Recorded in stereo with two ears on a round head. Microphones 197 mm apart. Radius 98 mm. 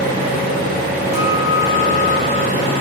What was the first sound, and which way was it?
An engine running, 35° right (ahead or behind).